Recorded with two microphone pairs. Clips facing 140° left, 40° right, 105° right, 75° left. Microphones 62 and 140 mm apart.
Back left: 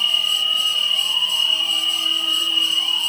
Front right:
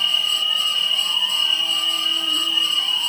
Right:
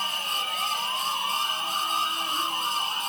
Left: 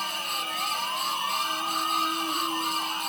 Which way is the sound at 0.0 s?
45° left.